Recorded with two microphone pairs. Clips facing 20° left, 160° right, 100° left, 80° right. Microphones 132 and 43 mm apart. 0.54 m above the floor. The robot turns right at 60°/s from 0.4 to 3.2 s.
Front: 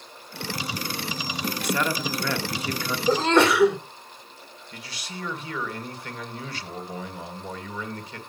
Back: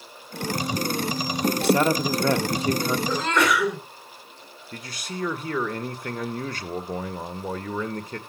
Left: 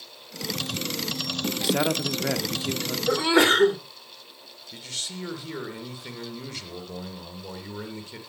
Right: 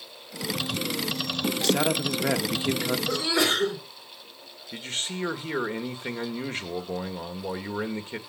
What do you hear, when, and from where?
1.6 s a man speaking: 165° left, 0.8 m; by 3.0 s 115° right, 0.8 m
3.1 s a sneeze: 65° left, 2.5 m; by 3.8 s 75° left, 2.5 m
4.7 s a man speaking: 130° right, 1.7 m